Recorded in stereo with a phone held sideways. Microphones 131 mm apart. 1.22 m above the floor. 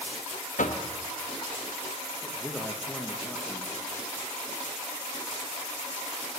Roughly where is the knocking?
Left.